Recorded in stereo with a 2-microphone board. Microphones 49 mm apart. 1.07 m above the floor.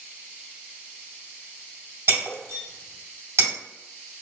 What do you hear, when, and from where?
2.1 s breaking glass: 70° right (ahead or behind), 1.9 m